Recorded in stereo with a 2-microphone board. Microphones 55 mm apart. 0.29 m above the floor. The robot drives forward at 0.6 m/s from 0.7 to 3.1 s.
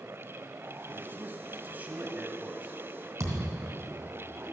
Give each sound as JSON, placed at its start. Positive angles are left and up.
{"t": 0.9, "sound": "a man speaking", "side_deg": -40, "distance_m": 1.4}
{"t": 3.2, "sound": "a thud", "side_deg": -55, "distance_m": 2.5}